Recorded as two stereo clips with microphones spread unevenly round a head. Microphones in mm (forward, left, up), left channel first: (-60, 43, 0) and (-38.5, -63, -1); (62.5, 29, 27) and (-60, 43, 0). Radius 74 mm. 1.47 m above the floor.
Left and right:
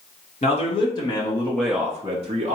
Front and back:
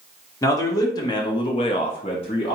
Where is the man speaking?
55° left, 1.3 m; by 2.6 s 55° right, 0.7 m.